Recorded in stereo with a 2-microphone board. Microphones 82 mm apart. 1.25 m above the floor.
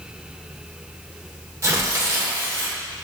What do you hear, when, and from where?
1.6 s tearing paper: 40° right (ahead or behind), 0.9 m